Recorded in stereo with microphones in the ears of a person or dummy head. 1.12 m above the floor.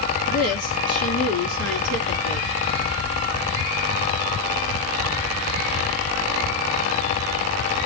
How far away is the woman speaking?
About 3 m.